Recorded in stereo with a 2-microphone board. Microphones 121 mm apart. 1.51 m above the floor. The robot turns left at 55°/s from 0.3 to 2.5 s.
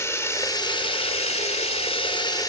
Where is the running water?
155° left, 2.0 m; by 2.5 s 35° left, 2.0 m.